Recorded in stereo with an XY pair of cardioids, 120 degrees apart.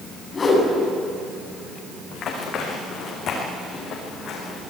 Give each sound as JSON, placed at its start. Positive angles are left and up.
{"t": 0.3, "sound": "a whoosh", "azimuth_deg": 30, "distance_m": 8.0}
{"t": 2.1, "sound": "running footsteps", "azimuth_deg": 55, "distance_m": 7.5}